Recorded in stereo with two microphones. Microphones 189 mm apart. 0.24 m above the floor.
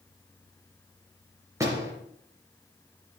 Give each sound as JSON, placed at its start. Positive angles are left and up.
{"t": 1.6, "sound": "a door slam", "side_deg": -15, "distance_m": 3.5}